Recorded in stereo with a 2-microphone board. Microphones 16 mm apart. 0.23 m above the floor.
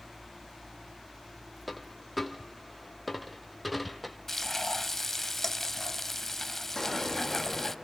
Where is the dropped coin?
5° left (ahead or behind), 1.7 m.